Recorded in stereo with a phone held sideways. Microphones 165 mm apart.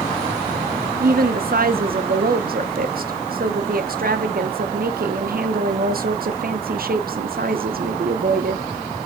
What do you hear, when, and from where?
1.0 s a woman speaking: 65° right (ahead or behind), 0.5 m